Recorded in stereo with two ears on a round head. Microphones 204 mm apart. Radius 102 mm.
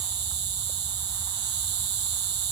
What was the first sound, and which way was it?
An insect, 50° right (ahead or behind).